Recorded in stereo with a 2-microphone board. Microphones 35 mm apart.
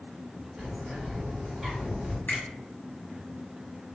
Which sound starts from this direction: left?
A finger snap, at 2.3 s.